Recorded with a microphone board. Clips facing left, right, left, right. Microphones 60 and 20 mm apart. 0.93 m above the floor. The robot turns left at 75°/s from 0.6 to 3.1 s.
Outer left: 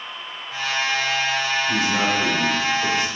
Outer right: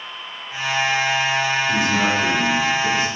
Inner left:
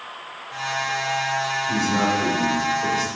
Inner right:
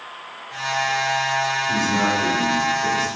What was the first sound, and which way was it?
A man speaking, 160° right.